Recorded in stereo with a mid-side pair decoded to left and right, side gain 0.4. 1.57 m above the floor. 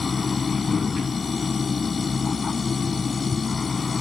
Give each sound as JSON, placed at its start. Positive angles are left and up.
{"t": 0.0, "sound": "a machine running", "azimuth_deg": 35}